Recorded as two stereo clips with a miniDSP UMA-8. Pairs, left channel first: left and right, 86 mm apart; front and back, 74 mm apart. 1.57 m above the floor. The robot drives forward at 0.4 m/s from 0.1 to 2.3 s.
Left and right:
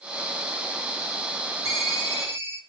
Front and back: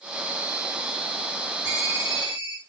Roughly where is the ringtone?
Behind right.